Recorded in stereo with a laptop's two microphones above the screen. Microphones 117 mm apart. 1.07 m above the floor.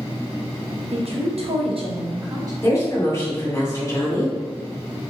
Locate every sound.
0.9 s a woman speaking: 60° right (ahead or behind), 0.8 m; by 2.5 s 30° right (ahead or behind), 0.8 m
2.6 s a woman speaking: 30° left (ahead or behind), 1.8 m